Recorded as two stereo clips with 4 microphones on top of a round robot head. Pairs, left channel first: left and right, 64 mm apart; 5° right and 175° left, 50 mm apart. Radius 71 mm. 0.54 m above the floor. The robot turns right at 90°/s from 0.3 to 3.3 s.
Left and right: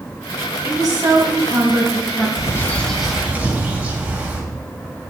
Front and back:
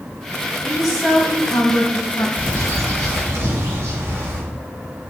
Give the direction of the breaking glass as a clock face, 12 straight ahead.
No breaking glass in this recording.